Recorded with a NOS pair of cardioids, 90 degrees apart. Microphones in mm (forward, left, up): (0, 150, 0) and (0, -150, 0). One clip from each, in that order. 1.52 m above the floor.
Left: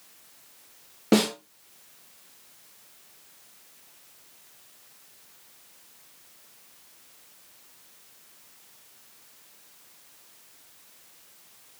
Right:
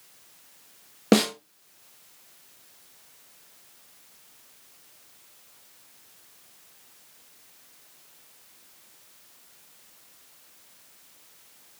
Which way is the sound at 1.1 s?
60° right.